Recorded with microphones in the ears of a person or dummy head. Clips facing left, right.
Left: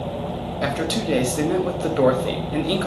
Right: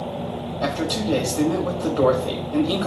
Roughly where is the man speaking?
Left.